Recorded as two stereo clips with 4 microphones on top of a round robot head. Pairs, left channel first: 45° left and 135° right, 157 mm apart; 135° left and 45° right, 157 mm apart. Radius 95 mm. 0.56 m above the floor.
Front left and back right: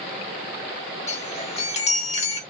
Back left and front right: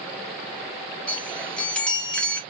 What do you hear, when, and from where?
1.1 s a chime: 55° left, 1.6 m